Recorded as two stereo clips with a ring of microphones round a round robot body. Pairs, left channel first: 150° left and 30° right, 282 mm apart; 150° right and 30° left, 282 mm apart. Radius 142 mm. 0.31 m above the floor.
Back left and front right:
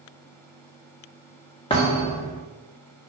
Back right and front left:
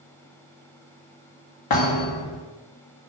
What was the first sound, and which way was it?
A thud, 135° right.